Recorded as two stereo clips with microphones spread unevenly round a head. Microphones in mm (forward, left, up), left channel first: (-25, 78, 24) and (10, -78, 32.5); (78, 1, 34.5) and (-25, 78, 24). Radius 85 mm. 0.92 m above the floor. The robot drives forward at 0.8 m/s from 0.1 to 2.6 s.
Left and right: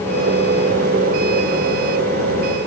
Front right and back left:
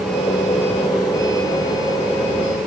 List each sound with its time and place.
Only background noise.